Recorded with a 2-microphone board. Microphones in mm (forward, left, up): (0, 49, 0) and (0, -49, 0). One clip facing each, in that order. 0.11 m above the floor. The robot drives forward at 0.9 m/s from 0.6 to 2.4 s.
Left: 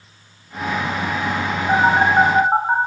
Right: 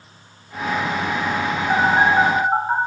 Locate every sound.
1.7 s a phone buzzing: 75° left (ahead or behind), 0.8 m; by 2.8 s 40° left (ahead or behind), 1.1 m